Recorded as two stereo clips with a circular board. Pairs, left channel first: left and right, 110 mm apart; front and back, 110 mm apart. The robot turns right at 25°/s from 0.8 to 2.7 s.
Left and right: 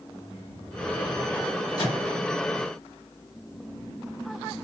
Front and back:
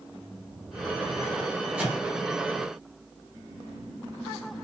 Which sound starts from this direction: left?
A microwave, at 1.8 s.